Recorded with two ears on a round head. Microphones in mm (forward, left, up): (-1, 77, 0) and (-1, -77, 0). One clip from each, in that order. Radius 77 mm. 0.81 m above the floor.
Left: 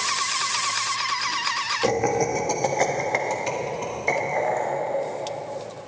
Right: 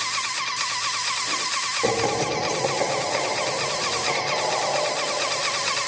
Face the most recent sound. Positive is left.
turn(degrees=65)  # may be behind; listen again after turning